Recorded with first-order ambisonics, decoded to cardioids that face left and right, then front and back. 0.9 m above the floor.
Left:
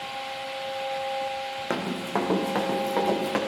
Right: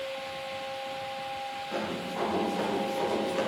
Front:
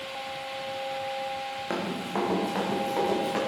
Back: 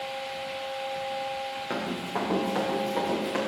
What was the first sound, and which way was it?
Running footsteps, 85° left.